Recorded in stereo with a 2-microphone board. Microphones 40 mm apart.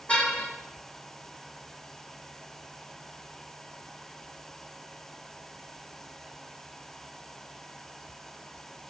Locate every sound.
0.1 s a car horn: 35° left (ahead or behind), 7 m